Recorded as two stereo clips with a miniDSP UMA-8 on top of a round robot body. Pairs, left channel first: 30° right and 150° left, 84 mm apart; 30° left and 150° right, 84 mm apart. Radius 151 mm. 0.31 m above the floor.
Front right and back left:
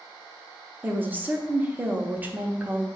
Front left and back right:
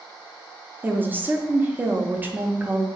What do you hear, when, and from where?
0.8 s a woman speaking: straight behind, 0.9 m